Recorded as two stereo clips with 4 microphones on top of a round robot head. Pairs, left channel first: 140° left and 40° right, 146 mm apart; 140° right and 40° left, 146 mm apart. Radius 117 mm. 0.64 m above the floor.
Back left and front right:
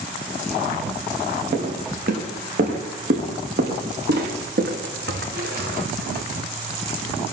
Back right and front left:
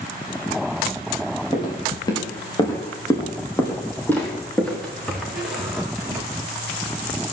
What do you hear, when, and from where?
1.5 s footsteps: 80° right, 8 m; by 6.2 s 35° right, 4.5 m